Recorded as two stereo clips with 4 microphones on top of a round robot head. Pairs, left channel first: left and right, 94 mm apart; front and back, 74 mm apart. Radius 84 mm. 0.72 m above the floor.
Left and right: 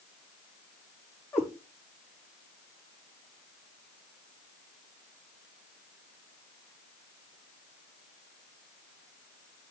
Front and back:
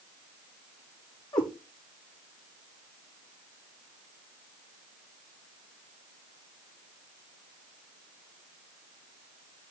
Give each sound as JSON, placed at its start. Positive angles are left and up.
{"t": 1.3, "sound": "a cat meowing", "azimuth_deg": 25, "distance_m": 6.0}